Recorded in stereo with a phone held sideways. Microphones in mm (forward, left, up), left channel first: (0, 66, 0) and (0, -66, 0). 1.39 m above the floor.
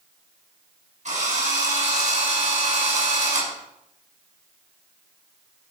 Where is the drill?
65° right (ahead or behind), 6.5 m.